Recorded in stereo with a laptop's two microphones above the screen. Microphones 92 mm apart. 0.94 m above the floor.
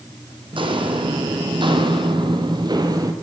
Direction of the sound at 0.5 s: 60° right (ahead or behind).